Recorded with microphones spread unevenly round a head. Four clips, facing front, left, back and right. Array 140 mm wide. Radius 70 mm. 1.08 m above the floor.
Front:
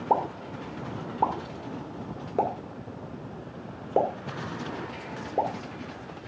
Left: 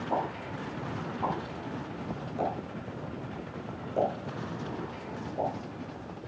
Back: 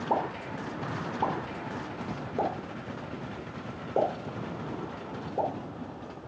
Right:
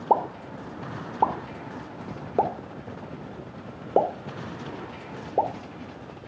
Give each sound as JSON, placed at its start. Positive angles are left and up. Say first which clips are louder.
{"t": 0.1, "sound": "a pop", "louder": "right 9 dB, front 4 dB", "azimuth_deg": -70, "distance_m": 2.0}